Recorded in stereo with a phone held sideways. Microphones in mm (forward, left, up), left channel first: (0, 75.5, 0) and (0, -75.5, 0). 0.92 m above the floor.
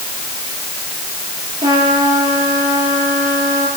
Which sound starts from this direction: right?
A trumpet, at 1.6 s.